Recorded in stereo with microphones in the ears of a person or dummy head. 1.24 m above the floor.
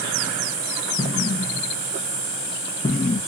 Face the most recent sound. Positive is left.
turn(degrees=20)  # may be behind; listen again after turning